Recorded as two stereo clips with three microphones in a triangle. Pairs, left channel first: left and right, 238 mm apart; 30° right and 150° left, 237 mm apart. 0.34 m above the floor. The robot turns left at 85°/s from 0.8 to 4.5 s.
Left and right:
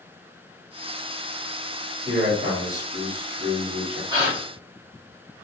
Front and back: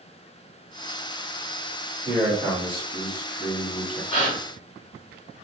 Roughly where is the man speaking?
Left.